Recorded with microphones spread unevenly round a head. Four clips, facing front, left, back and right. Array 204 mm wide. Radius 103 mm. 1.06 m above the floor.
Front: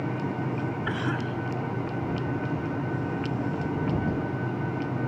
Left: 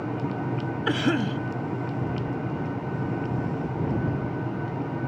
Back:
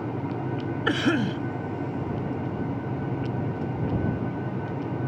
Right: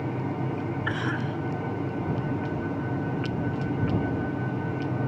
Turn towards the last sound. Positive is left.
turn(degrees=150)